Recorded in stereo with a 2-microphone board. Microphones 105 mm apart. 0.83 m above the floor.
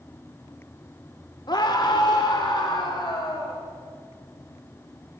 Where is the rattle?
I don't hear a rattle.